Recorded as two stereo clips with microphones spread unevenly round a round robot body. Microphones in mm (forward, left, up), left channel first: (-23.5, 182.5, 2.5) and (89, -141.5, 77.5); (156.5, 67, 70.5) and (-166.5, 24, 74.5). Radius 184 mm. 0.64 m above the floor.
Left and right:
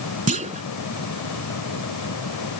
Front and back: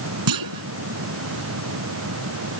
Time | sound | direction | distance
0.3 | a clunk | 145° right | ?